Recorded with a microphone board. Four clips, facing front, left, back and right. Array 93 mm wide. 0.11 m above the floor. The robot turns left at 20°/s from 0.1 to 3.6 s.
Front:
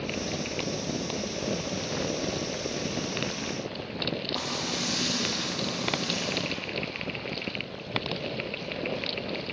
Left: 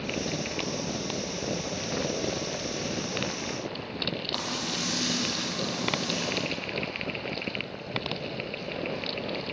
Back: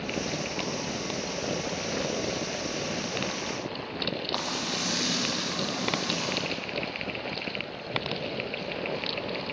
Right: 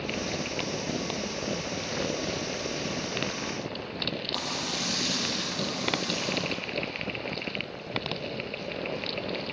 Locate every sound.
4.3 s frying: 170° left, 10 m